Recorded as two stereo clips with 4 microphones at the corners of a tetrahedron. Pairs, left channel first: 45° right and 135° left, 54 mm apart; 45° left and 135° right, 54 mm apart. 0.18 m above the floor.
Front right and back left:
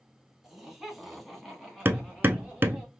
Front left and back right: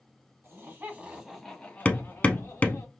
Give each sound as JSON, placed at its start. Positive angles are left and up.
{"t": 0.4, "sound": "laughter", "azimuth_deg": -140, "distance_m": 1.5}
{"t": 1.9, "sound": "hammering", "azimuth_deg": 105, "distance_m": 0.5}